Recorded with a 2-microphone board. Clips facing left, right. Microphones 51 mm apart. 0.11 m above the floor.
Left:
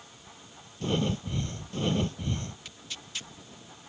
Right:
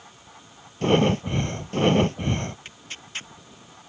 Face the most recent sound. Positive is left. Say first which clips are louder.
# right 4 dB
turn(degrees=-40)  # may be behind; listen again after turning